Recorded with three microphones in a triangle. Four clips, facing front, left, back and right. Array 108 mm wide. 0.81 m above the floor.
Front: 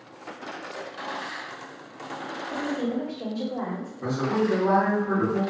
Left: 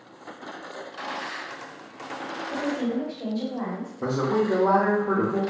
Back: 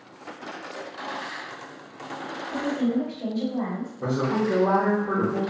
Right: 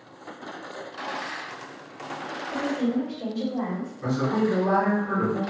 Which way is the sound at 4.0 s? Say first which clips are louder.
Left 1 dB, even; 105° left.